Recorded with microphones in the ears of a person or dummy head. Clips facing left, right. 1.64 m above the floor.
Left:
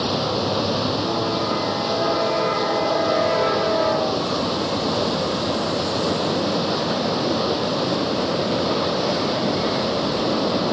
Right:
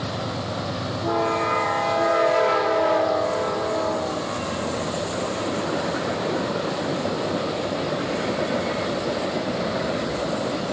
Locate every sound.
0.0 s running water: 75° left (ahead or behind)